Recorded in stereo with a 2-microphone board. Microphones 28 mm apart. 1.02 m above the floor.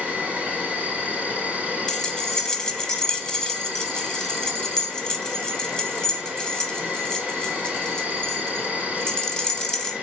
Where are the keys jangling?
25° left (ahead or behind), 0.6 m.